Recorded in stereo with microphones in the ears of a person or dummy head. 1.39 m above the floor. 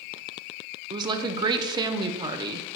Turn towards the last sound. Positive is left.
turn(degrees=-25)  # may be behind; listen again after turning